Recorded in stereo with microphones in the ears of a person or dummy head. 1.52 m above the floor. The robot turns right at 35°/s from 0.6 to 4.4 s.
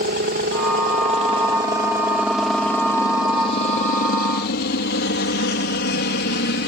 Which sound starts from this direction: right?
A helicopter, at 0.0 s.